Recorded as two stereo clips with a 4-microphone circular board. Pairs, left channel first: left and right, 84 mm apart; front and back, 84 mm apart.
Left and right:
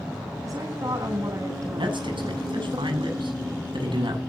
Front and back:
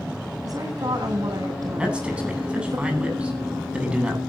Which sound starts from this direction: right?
A man speaking, at 1.8 s.